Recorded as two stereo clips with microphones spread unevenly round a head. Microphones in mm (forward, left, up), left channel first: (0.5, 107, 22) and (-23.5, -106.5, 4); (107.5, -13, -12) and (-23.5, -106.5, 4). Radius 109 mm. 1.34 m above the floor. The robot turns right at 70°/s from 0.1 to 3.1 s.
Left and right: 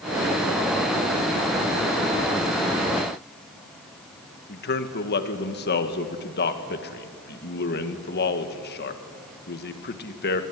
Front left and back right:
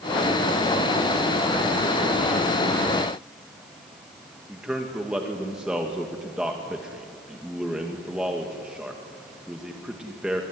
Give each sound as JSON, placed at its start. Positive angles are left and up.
{"t": 4.5, "sound": "a man speaking", "azimuth_deg": 130, "distance_m": 1.9}